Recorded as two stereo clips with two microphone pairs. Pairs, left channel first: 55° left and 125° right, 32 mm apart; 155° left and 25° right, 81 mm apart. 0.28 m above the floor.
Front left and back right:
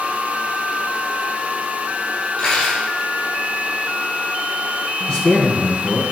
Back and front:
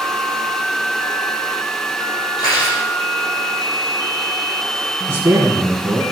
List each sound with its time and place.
2.4 s cutlery clinking: 120° left, 5 m
5.1 s a man speaking: 25° left, 1.8 m